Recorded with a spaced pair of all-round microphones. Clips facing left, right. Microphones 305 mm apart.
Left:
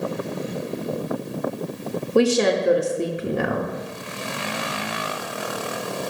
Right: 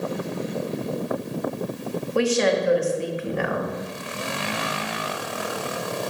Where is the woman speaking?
50° left (ahead or behind), 0.8 m.